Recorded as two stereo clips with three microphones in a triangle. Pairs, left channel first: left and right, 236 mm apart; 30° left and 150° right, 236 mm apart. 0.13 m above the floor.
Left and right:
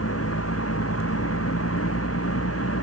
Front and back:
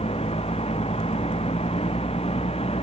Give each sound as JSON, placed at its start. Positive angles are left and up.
{"t": 0.0, "sound": "a vehicle", "azimuth_deg": 95}